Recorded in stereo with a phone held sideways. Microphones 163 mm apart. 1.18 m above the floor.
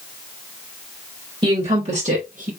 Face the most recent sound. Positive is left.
turn(degrees=-55)  # may be behind; listen again after turning